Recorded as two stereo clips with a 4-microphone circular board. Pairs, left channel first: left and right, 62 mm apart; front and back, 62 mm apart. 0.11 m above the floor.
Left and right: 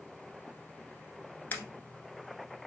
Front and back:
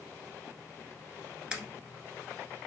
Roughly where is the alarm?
Behind left.